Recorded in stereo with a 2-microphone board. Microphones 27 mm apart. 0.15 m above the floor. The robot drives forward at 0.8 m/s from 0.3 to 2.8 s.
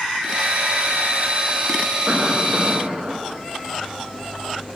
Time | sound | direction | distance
2.1 | a cough | 55° right (ahead or behind) | 7 m